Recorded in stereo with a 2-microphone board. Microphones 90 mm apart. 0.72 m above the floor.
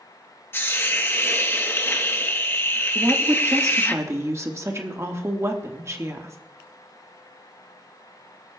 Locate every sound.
0.5 s a hiss: 25° left (ahead or behind), 0.8 m
3.0 s a woman speaking: 30° right (ahead or behind), 1.2 m